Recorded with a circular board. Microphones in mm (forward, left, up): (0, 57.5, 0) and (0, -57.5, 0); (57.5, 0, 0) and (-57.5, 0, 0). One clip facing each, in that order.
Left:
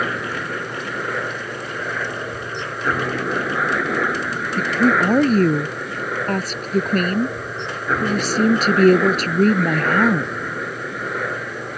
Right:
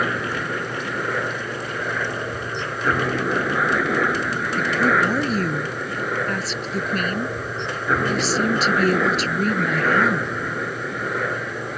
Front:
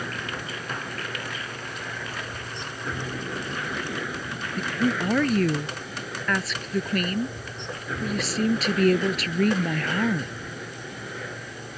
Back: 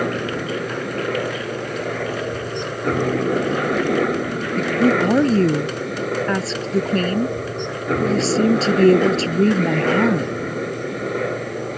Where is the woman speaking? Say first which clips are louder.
Left 3 dB, back 9 dB; 120° left.